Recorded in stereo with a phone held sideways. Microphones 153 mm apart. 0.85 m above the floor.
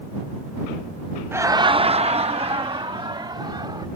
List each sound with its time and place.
1.3 s laughter: 15° right (ahead or behind); by 3.9 s 30° right (ahead or behind)